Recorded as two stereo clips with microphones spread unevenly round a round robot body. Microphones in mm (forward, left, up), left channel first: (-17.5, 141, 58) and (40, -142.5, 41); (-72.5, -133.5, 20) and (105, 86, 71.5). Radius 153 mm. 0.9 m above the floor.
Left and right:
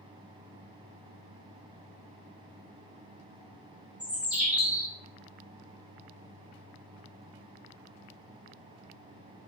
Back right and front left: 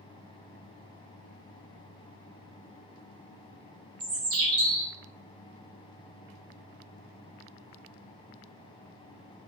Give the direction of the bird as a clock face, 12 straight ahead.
12 o'clock.